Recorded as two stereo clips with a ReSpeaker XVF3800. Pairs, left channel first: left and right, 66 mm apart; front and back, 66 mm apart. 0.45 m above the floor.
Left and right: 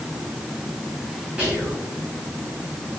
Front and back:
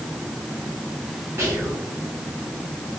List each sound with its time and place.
1.4 s whispering: 155° right, 1.1 m